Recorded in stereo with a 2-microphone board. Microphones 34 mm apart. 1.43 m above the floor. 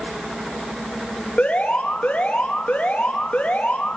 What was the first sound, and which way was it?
An alarm, 55° left (ahead or behind).